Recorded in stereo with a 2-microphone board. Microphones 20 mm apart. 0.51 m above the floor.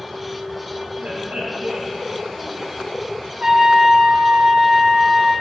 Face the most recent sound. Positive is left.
turn(degrees=-70)  # may be behind; listen again after turning